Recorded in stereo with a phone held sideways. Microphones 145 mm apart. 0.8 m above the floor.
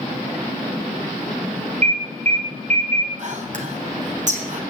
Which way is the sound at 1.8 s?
55° right (ahead or behind).